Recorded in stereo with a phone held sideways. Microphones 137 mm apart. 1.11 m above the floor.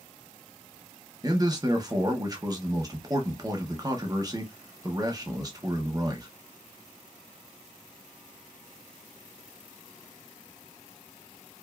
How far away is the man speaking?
About 0.8 m.